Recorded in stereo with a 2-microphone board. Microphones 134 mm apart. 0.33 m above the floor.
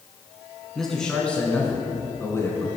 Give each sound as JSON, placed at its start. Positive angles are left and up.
{"t": 0.8, "sound": "a man speaking", "side_deg": 0, "distance_m": 3.0}